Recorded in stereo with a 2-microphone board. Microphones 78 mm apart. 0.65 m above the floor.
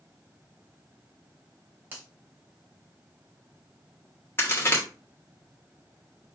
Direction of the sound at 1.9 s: 25° right (ahead or behind).